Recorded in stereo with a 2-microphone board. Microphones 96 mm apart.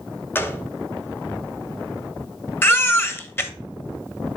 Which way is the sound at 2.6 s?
25° left (ahead or behind).